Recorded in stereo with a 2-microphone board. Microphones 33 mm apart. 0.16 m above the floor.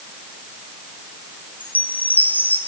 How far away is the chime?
About 4 m.